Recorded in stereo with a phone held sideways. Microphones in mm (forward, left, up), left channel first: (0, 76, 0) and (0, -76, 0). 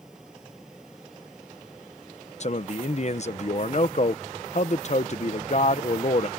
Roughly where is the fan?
Centre.